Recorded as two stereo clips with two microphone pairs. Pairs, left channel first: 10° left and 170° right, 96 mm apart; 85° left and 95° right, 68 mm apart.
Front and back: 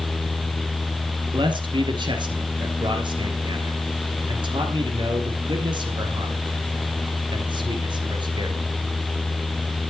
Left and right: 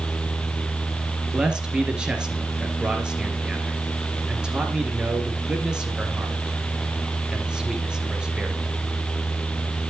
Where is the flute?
I don't hear a flute.